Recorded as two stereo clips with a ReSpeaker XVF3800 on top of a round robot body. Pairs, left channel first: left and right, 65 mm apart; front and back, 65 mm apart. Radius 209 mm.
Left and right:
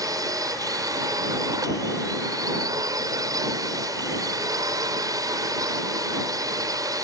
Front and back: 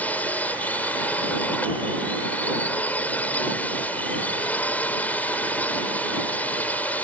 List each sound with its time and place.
0.0 s a drone: 65° right